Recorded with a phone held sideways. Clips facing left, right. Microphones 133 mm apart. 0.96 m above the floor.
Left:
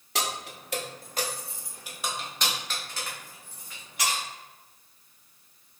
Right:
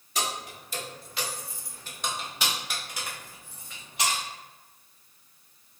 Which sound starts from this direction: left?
Keys jangling, at 0.1 s.